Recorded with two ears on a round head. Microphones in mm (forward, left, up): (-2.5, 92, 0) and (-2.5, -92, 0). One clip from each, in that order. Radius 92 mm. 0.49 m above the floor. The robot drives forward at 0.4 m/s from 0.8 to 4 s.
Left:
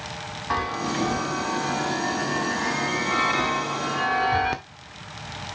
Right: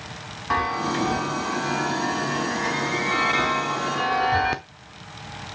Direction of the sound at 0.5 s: Centre (ahead or behind).